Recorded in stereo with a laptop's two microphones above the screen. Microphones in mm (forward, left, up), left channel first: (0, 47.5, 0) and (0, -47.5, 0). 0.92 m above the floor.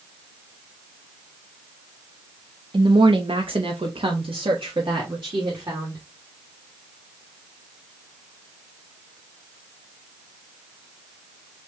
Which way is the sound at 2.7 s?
55° right (ahead or behind).